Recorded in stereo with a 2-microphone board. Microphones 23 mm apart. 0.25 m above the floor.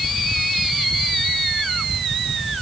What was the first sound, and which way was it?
Only background noise.